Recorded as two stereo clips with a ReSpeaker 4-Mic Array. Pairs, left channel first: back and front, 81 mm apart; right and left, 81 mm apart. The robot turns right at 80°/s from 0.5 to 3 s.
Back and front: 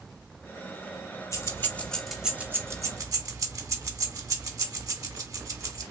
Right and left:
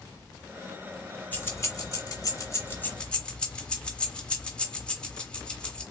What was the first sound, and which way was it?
Keys jangling, 150° right.